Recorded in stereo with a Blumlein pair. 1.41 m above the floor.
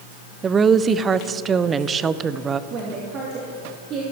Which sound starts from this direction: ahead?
A woman speaking, at 0.4 s.